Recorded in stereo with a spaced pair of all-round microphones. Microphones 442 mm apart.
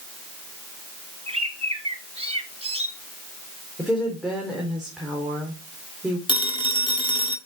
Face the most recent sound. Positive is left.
turn(degrees=10)  # may be behind; listen again after turning